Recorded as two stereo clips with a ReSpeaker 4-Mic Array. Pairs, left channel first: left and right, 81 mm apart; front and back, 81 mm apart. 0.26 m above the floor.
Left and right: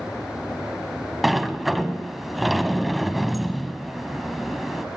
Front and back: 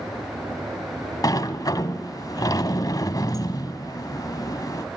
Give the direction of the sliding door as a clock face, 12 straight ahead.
12 o'clock.